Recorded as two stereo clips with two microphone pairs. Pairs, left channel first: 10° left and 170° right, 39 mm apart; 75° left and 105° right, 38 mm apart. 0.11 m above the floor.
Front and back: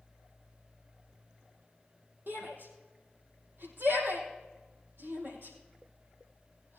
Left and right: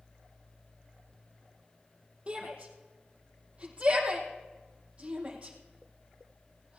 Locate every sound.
2.3 s a shout: 165° right, 3 m